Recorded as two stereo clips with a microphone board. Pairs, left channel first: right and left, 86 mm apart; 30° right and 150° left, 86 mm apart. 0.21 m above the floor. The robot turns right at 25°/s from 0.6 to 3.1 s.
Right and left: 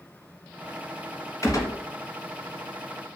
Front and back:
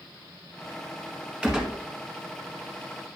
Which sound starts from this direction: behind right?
A gunshot, at 1.4 s.